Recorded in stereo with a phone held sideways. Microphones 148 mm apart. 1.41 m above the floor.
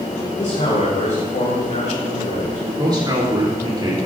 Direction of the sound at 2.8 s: 30° right (ahead or behind).